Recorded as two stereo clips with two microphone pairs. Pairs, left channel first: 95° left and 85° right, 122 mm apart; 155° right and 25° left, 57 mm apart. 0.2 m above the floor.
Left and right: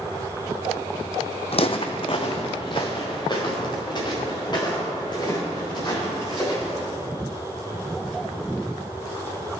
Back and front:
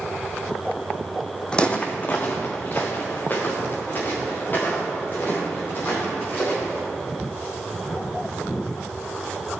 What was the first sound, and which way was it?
Footsteps, 130° left.